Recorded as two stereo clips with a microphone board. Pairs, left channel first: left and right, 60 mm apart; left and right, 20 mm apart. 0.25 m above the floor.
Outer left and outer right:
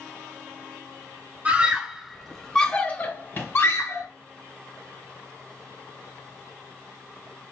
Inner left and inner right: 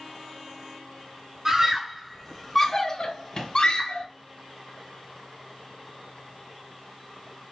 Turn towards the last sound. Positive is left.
turn(degrees=50)  # may be behind; listen again after turning